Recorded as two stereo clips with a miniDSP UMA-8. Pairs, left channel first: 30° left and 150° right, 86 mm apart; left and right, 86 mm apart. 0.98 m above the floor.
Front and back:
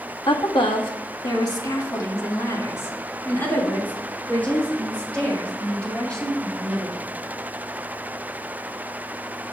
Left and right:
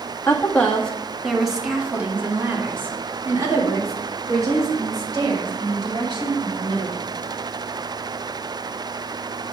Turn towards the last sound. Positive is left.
turn(degrees=-50)